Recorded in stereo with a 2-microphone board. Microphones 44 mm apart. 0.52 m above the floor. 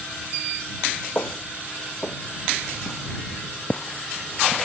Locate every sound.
1.1 s footsteps: 50° left (ahead or behind); by 4.7 s centre (ahead or behind)